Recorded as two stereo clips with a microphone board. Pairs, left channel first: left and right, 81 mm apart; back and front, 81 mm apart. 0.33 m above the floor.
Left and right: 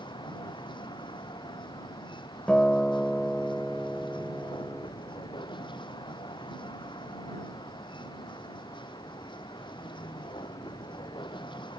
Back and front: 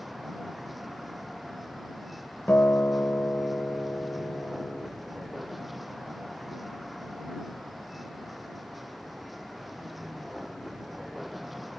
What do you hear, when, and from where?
0.0 s a vehicle: 90° left
2.5 s a guitar: 155° left